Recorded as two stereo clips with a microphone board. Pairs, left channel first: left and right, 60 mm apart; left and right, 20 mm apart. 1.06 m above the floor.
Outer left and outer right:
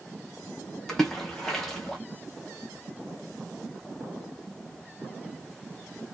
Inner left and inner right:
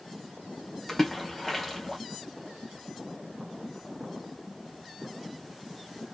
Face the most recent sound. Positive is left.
turn(degrees=10)  # may be behind; listen again after turning